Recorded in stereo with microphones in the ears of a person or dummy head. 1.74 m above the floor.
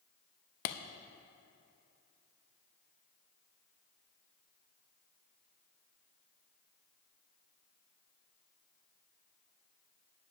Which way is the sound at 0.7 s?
55° left (ahead or behind).